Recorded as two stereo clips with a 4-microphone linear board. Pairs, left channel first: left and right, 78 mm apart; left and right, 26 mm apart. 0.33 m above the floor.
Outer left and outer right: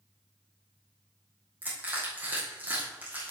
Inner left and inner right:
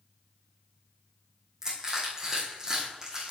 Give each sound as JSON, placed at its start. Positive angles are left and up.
{"t": 1.6, "sound": "crushing", "side_deg": -20, "distance_m": 4.0}